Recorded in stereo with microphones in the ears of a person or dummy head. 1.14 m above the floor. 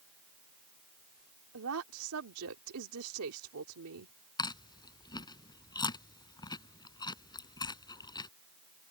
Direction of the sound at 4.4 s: 20° left (ahead or behind).